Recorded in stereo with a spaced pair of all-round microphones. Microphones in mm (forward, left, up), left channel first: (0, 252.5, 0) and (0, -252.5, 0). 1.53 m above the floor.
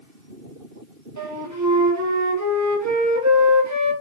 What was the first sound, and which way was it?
A flute, 35° right (ahead or behind).